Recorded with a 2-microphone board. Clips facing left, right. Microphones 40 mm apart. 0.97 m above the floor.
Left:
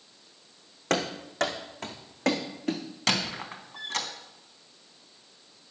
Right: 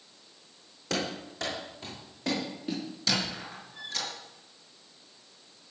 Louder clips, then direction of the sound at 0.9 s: Left 4 dB; 55° left (ahead or behind).